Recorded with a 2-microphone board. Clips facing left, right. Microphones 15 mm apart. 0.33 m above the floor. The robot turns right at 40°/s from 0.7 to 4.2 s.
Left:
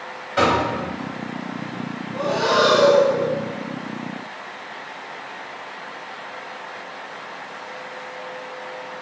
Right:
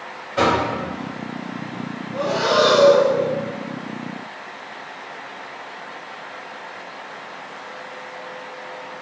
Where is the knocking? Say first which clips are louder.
Even; 35° left (ahead or behind), 1.6 m.